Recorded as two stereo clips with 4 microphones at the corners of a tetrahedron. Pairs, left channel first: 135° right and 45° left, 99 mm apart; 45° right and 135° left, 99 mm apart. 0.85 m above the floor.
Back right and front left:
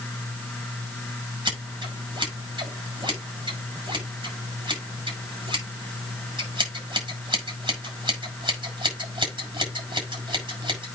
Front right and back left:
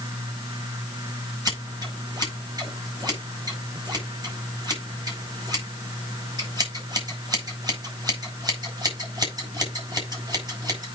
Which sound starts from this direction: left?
Scissors, at 1.4 s.